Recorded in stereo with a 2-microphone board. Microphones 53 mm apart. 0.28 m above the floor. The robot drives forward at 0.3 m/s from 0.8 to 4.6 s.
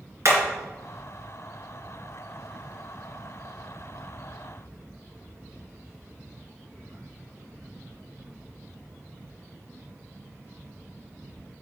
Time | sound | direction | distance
0.2 | hammering | 55° right (ahead or behind) | 2.5 m